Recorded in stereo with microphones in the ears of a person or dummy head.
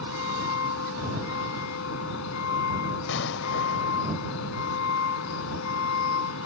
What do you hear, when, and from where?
0.0 s a vehicle: 80° left
3.1 s an explosion: 75° left (ahead or behind)